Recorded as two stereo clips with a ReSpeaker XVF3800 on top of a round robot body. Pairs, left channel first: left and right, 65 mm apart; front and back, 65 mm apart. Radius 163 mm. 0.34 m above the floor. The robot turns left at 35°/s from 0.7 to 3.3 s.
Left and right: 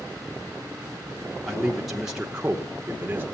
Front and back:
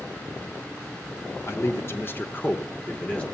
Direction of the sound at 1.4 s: 10° left.